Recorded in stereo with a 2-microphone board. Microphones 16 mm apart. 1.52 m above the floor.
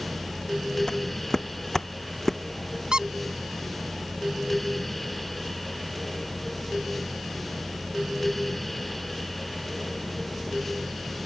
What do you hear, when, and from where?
0.9 s footsteps: 30° left (ahead or behind); by 2.4 s 10° left (ahead or behind)
2.9 s a squeak: 65° right (ahead or behind)